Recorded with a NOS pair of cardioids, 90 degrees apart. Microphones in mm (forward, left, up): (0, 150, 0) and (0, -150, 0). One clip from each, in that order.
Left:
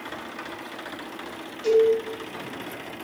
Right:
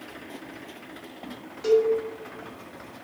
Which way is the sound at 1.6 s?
10° right.